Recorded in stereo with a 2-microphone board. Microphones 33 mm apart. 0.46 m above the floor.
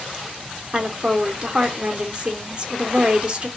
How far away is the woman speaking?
About 0.8 m.